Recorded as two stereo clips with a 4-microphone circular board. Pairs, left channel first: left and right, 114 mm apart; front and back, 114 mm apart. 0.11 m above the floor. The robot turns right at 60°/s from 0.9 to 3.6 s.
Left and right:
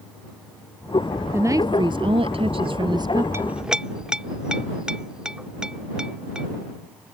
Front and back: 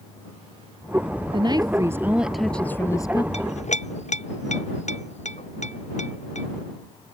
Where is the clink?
20° right; by 6.5 s 5° right.